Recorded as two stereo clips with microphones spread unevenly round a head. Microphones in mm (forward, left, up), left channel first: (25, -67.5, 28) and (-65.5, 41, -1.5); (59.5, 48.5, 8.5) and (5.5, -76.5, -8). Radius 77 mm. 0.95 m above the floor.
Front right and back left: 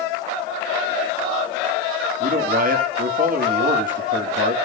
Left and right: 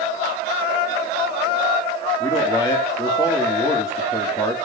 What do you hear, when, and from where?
2.2 s a man speaking: 135° left, 2.5 m